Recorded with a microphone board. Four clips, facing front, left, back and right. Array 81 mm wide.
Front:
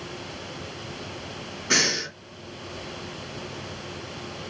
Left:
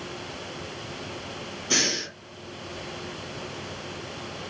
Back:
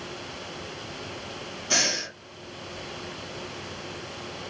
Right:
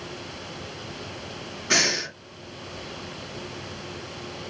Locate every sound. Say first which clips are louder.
1.7 s breathing: right 4 dB, front 3 dB; 45° right, 2.5 m